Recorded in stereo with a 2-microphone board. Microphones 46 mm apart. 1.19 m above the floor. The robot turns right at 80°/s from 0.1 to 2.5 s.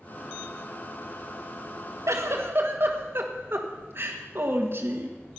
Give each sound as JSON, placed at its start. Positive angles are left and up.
{"t": 2.1, "sound": "a giggle", "azimuth_deg": -85, "distance_m": 1.5}